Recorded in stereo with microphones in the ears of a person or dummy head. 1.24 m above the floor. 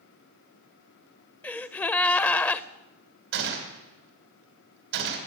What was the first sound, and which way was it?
A gasp, 10° left (ahead or behind).